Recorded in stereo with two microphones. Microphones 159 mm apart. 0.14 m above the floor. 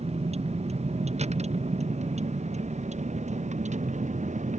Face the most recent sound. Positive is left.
turn(degrees=-50)  # may be behind; listen again after turning